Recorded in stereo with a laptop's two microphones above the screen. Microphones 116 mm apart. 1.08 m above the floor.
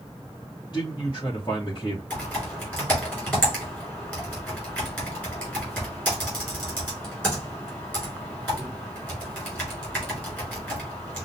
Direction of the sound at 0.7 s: 40° left (ahead or behind).